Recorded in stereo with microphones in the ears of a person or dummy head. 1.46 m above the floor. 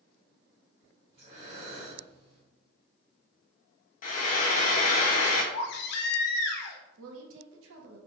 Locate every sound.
1.1 s breathing: 35° right (ahead or behind), 1.9 m
4.0 s frying: 50° left (ahead or behind), 0.6 m
5.5 s a baby crying: 60° left (ahead or behind), 0.5 m
7.0 s a woman speaking: 80° right, 0.7 m